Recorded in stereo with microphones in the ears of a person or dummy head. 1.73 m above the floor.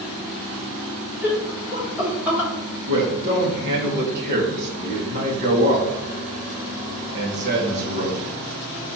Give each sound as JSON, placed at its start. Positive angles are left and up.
{"t": 1.2, "sound": "laughter", "side_deg": -10, "distance_m": 4.5}
{"t": 2.9, "sound": "a man speaking", "side_deg": -65, "distance_m": 3.0}